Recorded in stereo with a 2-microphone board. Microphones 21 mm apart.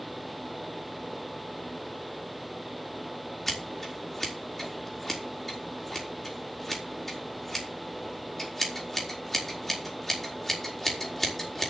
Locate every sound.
3.5 s scissors: 15° left (ahead or behind), 4 m